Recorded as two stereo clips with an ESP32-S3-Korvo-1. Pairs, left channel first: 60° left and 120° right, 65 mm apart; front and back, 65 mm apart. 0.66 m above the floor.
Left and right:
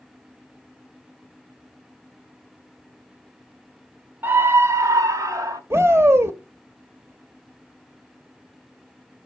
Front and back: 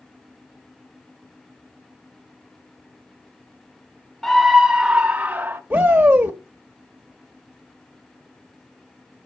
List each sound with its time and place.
4.2 s a scream: 80° right, 0.7 m; by 5.6 s 120° right, 1.1 m
5.7 s a shout: 125° right, 0.9 m